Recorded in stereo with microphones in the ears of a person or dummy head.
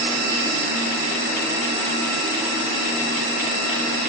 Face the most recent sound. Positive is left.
No sound to turn to.